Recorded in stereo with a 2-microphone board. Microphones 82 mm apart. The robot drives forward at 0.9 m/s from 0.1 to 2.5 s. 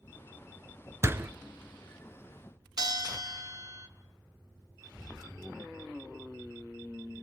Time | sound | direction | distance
1.0 | a door slam | 30° right (ahead or behind) | 0.9 m
2.8 | a bell | 50° right (ahead or behind) | 1.5 m